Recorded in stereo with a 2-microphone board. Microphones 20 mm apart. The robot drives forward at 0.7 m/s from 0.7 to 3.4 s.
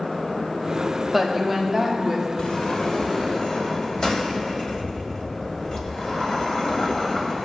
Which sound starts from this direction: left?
A sliding door, at 2.4 s.